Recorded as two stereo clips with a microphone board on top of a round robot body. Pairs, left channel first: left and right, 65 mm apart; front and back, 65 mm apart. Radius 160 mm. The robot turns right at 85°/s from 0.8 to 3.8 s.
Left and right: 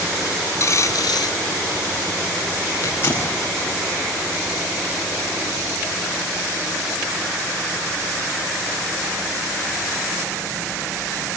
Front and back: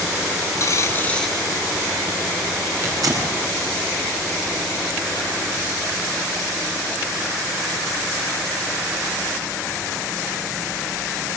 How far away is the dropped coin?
About 1.2 m.